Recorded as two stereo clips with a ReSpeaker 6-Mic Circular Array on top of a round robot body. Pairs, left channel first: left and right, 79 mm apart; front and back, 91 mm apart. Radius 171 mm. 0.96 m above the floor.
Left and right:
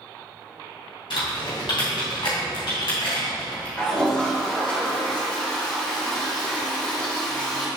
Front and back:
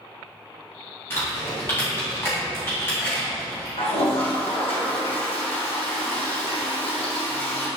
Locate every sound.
1.1 s typing on a keyboard: 65° left, 2.5 m
3.8 s a toilet flushing: 15° left, 1.6 m